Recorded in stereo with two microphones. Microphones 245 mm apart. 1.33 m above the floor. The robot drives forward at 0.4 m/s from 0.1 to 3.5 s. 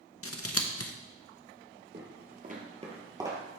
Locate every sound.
0.2 s scissors: 65° left (ahead or behind), 0.7 m; by 0.9 s 75° left (ahead or behind), 0.7 m
1.9 s footsteps: 45° right (ahead or behind), 1.8 m; by 3.4 s 10° right (ahead or behind), 1.7 m